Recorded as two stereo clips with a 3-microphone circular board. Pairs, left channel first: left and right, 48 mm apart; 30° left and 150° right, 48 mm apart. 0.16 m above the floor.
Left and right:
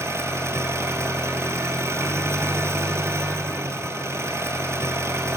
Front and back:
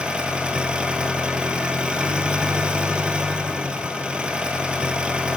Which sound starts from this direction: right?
An engine running, at 0.0 s.